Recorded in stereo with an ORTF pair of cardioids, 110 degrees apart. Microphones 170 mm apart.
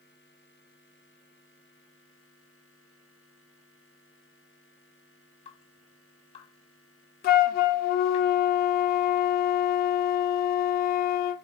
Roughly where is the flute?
Ahead left.